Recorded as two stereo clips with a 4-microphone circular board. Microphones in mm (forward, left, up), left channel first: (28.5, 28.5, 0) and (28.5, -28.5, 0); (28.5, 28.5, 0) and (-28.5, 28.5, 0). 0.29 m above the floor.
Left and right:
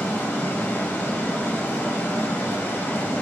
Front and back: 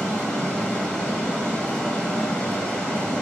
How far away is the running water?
About 1.3 m.